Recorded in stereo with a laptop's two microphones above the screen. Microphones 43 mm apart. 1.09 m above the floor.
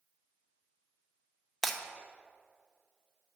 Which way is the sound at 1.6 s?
5° left (ahead or behind).